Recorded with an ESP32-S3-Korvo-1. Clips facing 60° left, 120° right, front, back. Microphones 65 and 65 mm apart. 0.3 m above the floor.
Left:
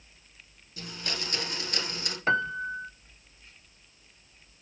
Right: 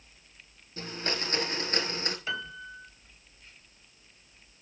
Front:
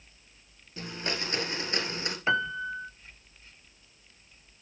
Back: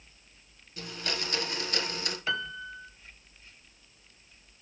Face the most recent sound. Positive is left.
turn(degrees=50)